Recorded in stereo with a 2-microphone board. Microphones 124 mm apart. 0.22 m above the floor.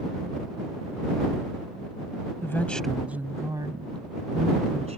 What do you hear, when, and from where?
2.4 s a woman speaking: 20° left (ahead or behind); by 5.0 s 60° right (ahead or behind)